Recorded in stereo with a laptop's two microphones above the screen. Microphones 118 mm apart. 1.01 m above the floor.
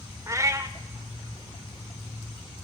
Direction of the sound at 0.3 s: 25° right (ahead or behind).